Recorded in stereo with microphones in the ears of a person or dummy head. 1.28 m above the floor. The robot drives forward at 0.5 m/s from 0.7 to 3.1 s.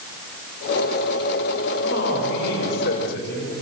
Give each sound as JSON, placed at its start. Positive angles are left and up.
{"t": 1.8, "sound": "a man speaking", "side_deg": 65, "distance_m": 6.5}